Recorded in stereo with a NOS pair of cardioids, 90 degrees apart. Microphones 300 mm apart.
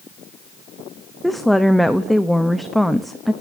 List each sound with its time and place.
1.2 s a woman speaking: straight ahead, 0.8 m